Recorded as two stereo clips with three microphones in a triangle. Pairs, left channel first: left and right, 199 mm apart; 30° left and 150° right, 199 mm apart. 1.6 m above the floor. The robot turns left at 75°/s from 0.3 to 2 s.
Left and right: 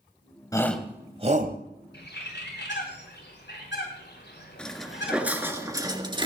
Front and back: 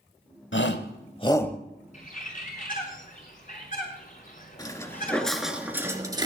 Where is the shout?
20° left, 1.2 m; by 1.6 s 60° right, 1.2 m.